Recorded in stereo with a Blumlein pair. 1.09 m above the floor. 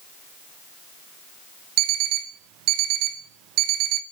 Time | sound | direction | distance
1.8 | an alarm clock | 40° right | 0.5 m